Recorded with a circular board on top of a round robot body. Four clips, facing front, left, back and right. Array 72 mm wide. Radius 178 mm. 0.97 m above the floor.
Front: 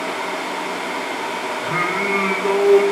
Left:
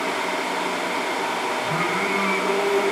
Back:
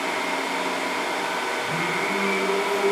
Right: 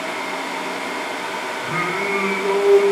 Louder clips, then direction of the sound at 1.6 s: Right 1 dB, front 4 dB; 30° right.